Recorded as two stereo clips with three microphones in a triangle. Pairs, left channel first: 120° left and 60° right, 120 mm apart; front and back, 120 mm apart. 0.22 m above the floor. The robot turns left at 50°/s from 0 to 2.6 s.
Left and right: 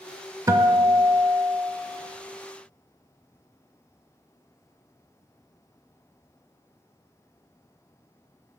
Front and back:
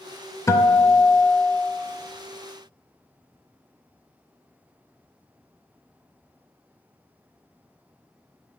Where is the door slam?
I don't hear a door slam.